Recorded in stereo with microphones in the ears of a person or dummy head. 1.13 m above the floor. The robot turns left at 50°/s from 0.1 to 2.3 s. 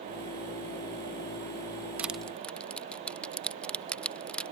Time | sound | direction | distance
2.0 | crushing | 10° right (ahead or behind) | ?